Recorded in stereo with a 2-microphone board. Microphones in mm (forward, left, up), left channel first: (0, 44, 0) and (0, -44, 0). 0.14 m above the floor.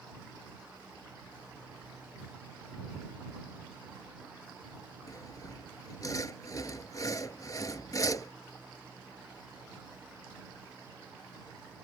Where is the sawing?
40° left (ahead or behind).